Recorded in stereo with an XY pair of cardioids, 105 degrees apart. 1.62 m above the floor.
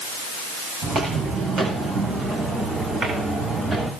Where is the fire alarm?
No fire alarm in this recording.